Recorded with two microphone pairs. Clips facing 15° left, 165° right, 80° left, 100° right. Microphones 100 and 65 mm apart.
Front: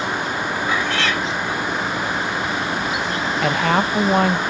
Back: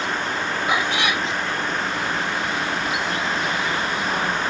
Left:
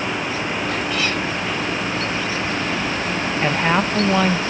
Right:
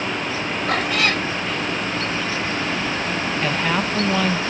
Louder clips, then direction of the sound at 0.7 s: Even, right 5 dB; 90° right.